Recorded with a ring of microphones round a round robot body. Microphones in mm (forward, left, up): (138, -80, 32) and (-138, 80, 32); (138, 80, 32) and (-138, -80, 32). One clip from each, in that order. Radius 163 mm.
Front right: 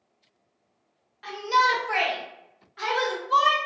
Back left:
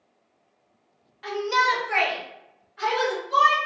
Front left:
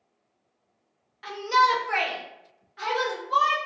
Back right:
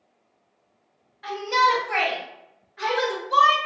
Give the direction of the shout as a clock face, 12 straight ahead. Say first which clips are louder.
Even, back right 1 dB; 10 o'clock.